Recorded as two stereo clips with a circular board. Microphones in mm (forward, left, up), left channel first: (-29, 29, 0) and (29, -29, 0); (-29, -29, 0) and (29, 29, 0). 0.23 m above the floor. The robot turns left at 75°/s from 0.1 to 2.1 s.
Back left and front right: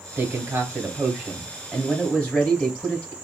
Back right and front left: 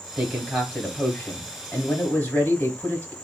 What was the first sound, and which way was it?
A man speaking, 25° right.